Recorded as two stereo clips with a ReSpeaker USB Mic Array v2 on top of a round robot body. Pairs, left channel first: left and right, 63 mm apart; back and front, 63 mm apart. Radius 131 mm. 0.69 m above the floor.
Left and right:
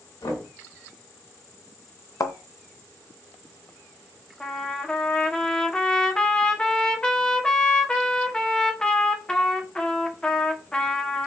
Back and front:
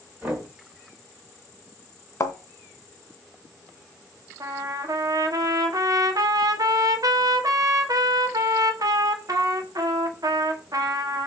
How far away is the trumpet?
About 1.5 m.